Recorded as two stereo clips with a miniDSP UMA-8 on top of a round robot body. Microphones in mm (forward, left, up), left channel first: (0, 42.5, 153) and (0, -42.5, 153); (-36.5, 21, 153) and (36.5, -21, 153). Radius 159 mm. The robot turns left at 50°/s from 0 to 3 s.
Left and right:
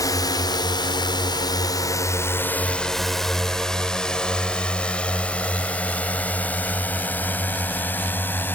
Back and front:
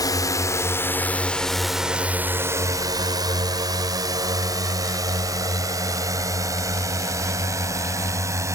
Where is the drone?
120° left; by 8.6 s 25° left.